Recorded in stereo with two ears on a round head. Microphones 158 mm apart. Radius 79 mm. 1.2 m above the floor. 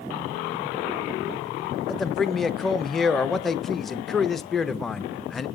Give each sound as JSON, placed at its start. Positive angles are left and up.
{"t": 1.9, "sound": "a man speaking", "side_deg": 0, "distance_m": 0.7}